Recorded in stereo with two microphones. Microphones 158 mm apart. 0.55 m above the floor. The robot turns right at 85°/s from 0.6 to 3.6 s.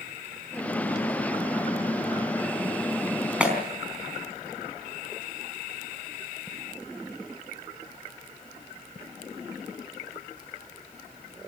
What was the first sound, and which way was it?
A clap, 5° right (ahead or behind).